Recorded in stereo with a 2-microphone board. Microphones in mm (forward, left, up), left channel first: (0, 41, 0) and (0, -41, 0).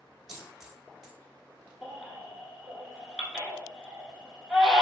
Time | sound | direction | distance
0.3 | a dropped coin | centre (ahead or behind) | 0.7 m
1.8 | a baby crying | centre (ahead or behind) | 0.8 m